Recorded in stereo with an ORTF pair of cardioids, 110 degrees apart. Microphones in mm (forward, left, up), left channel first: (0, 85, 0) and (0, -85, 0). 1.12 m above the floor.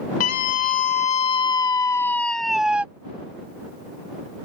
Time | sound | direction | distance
0.2 | a scream | 60° left | ?